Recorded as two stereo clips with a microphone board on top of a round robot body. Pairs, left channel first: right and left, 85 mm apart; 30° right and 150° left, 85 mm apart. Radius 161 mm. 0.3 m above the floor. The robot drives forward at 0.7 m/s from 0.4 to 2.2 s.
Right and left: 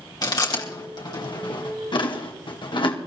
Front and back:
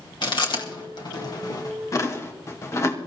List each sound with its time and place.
0.2 s chewing: 55° right, 2.5 m; by 3.0 s 85° right, 2.5 m